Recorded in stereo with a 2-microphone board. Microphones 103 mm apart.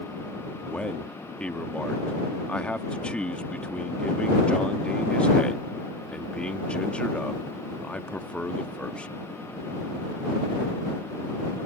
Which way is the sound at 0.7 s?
10° left (ahead or behind).